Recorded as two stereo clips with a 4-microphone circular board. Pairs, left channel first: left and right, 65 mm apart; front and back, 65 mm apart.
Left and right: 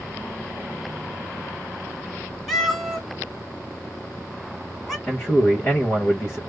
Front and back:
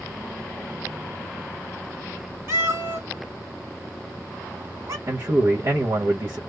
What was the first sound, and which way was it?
A cat meowing, straight behind.